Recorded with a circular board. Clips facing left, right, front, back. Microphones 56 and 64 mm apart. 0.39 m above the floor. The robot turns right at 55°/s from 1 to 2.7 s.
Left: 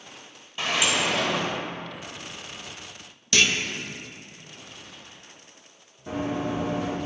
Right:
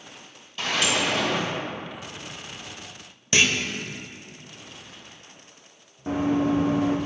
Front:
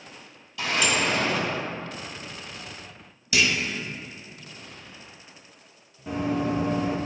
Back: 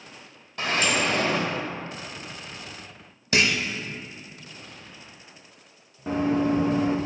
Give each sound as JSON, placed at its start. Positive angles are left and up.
{"t": 0.6, "sound": "a sliding door", "azimuth_deg": 160, "distance_m": 1.6}
{"t": 3.3, "sound": "a clunk", "azimuth_deg": -150, "distance_m": 0.6}
{"t": 6.1, "sound": "running footsteps", "azimuth_deg": -130, "distance_m": 1.6}